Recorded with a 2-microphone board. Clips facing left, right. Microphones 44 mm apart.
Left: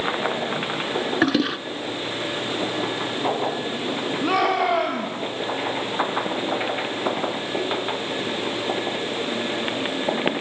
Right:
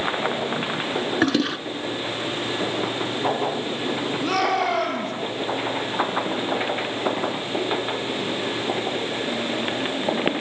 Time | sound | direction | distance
1.2 | a toilet flushing | 5° left (ahead or behind) | 0.6 m
4.2 | a shout | 15° left (ahead or behind) | 7 m